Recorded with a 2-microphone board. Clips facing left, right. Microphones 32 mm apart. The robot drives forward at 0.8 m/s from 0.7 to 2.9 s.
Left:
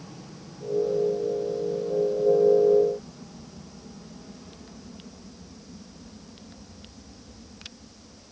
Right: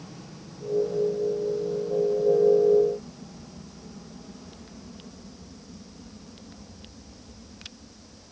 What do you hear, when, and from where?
Only background noise.